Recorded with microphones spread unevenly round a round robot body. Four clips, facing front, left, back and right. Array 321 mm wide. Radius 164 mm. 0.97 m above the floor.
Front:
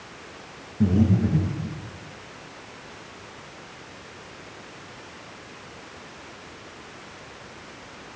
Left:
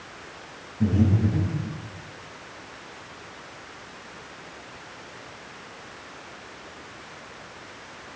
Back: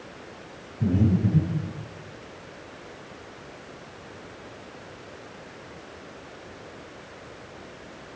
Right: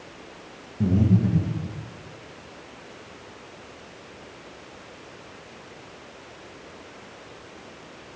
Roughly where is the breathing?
Ahead right.